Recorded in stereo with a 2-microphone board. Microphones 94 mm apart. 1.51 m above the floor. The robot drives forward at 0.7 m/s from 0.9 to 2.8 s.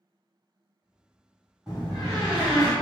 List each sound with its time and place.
1.7 s a door slam: 10° right (ahead or behind), 1.7 m; by 2.7 s 5° right (ahead or behind), 2.5 m